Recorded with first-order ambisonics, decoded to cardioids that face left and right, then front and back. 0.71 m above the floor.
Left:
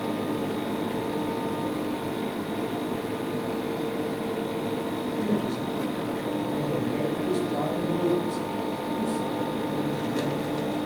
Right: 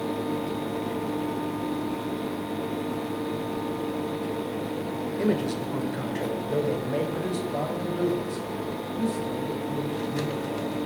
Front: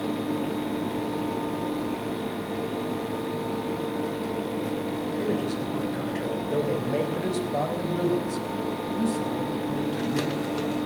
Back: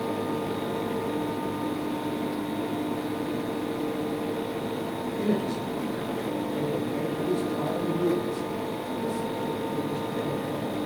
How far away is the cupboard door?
I don't hear a cupboard door.